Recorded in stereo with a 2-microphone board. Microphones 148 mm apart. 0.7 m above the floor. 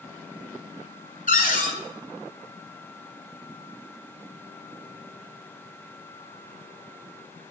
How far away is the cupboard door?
About 1.5 m.